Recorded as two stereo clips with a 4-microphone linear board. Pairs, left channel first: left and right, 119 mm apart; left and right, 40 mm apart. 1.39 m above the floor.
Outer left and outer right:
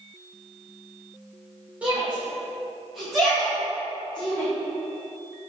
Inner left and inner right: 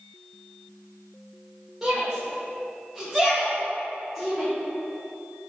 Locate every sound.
1.8 s a shout: 10° right (ahead or behind), 1.9 m; by 4.5 s 10° left (ahead or behind), 3.5 m